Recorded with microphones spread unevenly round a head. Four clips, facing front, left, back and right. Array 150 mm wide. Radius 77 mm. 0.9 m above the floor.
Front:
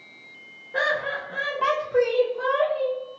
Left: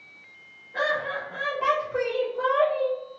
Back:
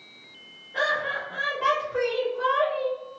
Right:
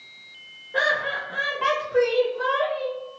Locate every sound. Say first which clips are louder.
0.7 s laughter: right 2 dB, front 1 dB; 45° right, 1.2 m; by 3.0 s 70° left, 1.1 m